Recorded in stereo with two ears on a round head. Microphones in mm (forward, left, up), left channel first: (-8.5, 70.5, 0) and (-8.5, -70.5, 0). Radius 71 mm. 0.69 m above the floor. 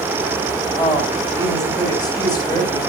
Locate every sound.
0.8 s a woman speaking: 25° left (ahead or behind), 3.5 m